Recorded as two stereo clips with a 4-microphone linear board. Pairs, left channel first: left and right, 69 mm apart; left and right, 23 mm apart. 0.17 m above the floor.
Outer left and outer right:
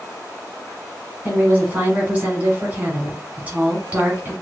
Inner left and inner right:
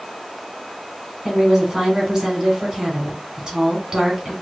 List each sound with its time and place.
1.2 s a woman speaking: 25° right (ahead or behind), 1.3 m